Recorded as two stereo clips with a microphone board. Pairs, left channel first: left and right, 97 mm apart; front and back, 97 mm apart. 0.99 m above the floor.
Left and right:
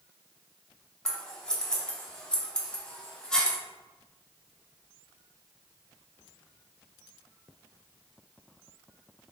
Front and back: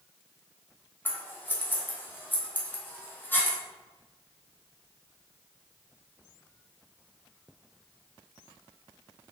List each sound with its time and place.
1.1 s scissors: 20° left, 0.6 m